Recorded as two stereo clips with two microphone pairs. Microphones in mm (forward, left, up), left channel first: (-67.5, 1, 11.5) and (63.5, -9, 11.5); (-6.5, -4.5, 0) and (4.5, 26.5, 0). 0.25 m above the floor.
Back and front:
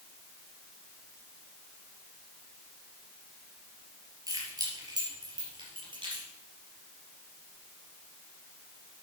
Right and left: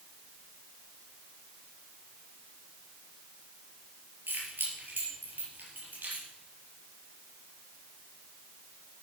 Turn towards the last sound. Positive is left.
turn(degrees=45)